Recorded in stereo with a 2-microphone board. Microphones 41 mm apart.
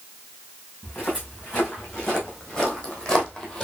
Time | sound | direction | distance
0.8 | footsteps | 25° left (ahead or behind) | 4 m